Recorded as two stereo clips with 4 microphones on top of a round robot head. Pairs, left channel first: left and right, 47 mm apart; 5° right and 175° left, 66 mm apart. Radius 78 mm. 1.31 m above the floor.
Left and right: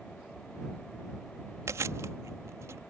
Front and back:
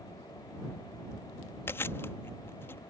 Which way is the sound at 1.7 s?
60° right.